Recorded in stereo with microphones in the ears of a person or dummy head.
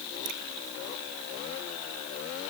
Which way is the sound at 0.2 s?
60° right (ahead or behind).